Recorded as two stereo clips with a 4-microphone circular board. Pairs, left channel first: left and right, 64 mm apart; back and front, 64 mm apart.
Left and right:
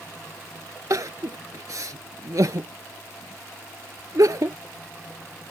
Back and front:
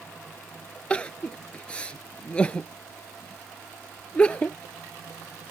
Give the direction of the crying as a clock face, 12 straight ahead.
4 o'clock.